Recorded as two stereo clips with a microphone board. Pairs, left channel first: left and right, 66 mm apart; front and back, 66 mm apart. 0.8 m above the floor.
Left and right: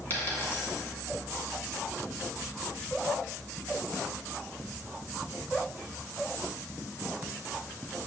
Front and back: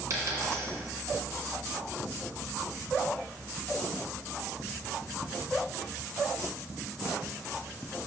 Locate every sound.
0.1 s a dropped coin: 145° left, 2.0 m